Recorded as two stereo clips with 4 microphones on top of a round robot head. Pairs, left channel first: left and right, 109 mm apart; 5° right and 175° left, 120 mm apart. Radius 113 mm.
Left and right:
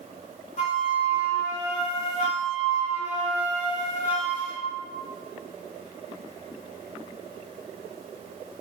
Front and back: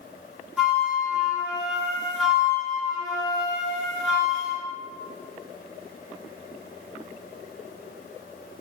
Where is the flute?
90° left, 0.9 m.